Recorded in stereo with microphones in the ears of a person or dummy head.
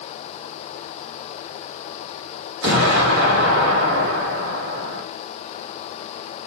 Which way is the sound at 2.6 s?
70° right (ahead or behind).